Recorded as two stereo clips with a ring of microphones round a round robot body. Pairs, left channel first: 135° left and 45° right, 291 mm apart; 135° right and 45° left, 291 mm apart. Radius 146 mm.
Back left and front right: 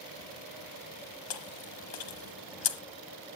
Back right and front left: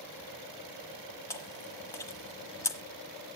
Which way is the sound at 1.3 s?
145° left.